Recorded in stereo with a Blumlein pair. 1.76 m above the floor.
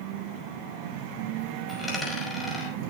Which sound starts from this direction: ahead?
A dropped coin, at 1.7 s.